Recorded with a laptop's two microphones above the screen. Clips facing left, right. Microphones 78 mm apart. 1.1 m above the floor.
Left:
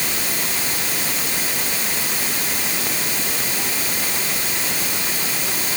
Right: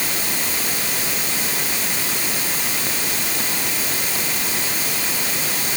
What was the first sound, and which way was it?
Only background noise.